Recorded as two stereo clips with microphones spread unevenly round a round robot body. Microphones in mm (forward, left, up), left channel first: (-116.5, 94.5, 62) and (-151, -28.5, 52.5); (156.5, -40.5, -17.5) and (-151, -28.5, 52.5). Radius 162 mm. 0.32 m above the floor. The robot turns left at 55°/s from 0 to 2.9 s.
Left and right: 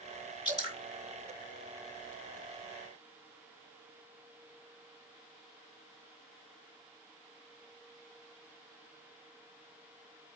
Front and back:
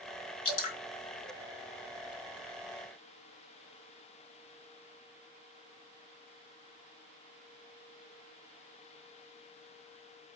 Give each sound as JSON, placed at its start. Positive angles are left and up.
{"t": 0.5, "sound": "dripping", "azimuth_deg": 10, "distance_m": 3.5}